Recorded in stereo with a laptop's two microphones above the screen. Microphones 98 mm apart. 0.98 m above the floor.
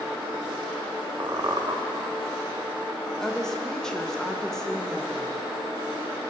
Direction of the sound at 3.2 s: 5° left (ahead or behind).